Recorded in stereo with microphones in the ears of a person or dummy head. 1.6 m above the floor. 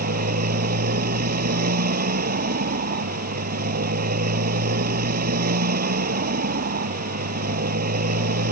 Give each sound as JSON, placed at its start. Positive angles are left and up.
{"t": 0.0, "sound": "a motorcycle", "side_deg": -50}